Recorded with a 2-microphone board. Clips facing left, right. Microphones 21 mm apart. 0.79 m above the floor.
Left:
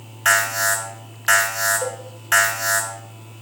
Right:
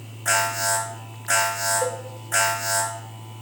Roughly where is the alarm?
Left.